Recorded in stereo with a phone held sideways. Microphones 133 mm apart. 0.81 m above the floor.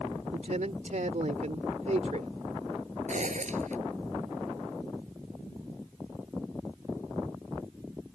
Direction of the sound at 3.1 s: 65° right (ahead or behind).